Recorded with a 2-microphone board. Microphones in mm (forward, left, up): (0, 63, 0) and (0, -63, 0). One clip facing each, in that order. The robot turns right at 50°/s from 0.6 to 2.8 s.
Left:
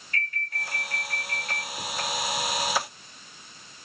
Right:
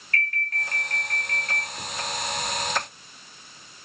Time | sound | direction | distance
0.1 | an alarm | 105° right | 1.7 m